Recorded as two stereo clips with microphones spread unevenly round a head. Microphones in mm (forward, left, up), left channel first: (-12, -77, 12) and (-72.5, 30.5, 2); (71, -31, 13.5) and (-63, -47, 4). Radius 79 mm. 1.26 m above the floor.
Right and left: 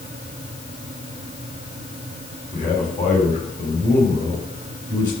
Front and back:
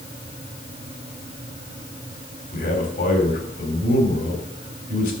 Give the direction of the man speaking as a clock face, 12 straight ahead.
12 o'clock.